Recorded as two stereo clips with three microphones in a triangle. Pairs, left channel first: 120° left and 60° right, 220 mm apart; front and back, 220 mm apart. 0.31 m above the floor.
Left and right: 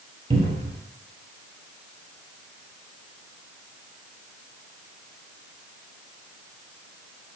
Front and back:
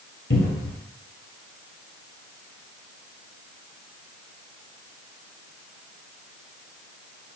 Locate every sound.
0.3 s a cupboard door: straight ahead, 0.9 m